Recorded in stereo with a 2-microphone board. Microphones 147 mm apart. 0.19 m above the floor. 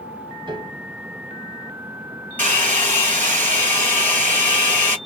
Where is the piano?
35° right (ahead or behind), 1.0 m.